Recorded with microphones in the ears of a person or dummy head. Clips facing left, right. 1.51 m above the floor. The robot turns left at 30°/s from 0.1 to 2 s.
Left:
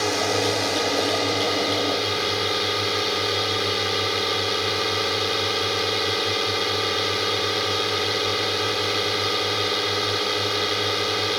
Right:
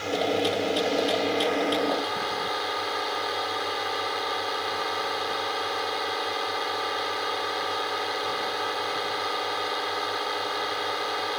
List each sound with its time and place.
0.0 s a drone: 95° left; by 11.4 s 40° left